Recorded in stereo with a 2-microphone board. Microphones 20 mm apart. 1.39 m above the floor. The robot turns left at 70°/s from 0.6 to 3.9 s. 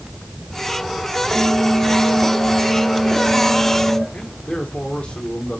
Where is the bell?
85° right, 5.5 m; by 4.0 s 90° left, 5.5 m.